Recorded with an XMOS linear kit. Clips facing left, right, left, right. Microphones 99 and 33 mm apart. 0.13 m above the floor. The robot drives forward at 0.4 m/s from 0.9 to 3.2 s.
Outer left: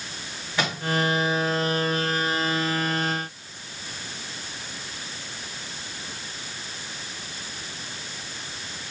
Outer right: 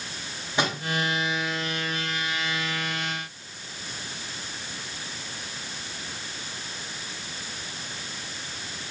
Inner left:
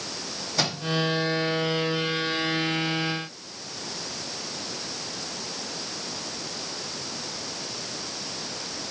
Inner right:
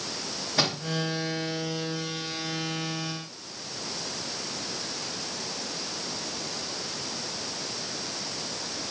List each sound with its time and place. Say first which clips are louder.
0.6 s a microwave: outer right 1 dB, inner right 1 dB; 20° right (ahead or behind), 8 m